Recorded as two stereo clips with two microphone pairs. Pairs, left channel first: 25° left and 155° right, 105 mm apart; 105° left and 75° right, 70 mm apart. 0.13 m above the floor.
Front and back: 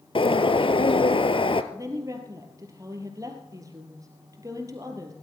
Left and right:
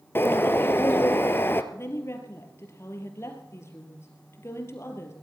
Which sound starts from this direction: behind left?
A woman speaking, at 1.7 s.